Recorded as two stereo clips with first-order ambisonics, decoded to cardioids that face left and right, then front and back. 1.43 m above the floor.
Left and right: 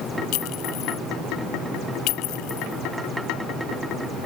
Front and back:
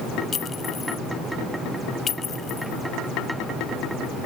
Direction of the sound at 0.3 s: 65° left.